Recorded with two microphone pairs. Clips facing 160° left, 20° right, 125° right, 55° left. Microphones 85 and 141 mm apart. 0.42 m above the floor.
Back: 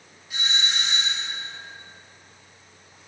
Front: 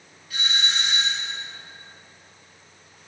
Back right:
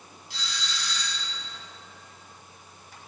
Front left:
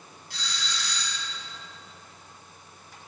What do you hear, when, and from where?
0.3 s a doorbell: 90° left, 4 m